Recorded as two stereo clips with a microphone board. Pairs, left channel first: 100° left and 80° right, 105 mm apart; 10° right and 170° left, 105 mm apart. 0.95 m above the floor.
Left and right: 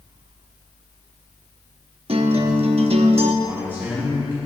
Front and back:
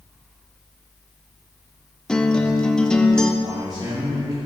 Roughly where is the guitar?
Right.